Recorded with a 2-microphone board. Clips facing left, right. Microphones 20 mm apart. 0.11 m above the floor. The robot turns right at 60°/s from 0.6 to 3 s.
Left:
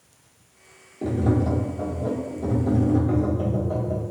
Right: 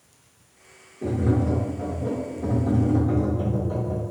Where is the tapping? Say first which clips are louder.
Left 1 dB; 75° left, 1.3 m; by 4.0 s 165° right, 1.3 m.